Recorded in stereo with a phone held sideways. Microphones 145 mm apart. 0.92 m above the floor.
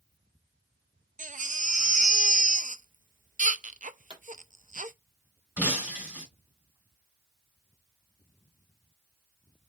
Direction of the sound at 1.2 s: 60° right (ahead or behind).